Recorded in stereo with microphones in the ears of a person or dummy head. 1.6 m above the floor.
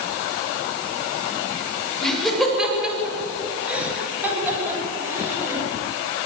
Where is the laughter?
Centre (ahead or behind), 8 m; by 5.6 s 15° right (ahead or behind), 11 m.